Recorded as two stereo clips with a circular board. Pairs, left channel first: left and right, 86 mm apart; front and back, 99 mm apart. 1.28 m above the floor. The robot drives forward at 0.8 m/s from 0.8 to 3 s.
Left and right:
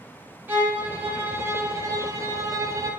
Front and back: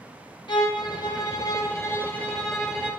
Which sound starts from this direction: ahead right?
A violin, at 0.5 s.